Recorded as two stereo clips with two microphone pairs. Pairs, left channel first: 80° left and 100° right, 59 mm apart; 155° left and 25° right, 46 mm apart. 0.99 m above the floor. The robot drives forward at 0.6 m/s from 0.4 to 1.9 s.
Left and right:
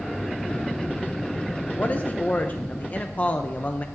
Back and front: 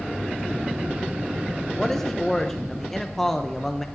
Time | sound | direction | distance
1.8 | a man speaking | 75° left | 0.6 m